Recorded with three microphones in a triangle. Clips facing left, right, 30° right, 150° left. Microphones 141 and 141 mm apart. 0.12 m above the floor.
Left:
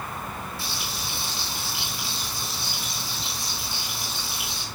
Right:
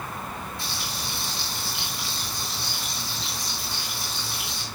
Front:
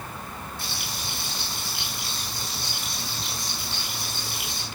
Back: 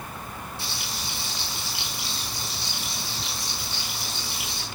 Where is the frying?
5° left, 5 m.